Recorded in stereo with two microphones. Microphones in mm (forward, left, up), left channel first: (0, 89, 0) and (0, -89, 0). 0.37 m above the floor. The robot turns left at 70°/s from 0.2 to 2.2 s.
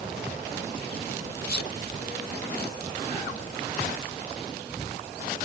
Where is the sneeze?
60° left (ahead or behind); by 1.8 s 80° left.